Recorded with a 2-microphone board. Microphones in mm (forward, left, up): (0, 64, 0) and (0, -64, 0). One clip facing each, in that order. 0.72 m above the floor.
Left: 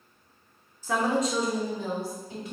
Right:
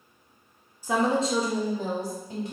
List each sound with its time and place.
0.8 s a woman speaking: 15° right (ahead or behind), 0.6 m; by 2.5 s 50° right (ahead or behind), 1.6 m